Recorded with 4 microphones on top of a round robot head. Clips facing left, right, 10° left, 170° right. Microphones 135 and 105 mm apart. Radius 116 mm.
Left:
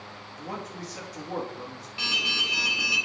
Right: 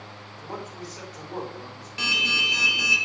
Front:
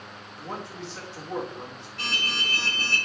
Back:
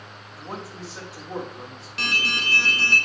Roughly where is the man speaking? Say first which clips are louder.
Even, even; left.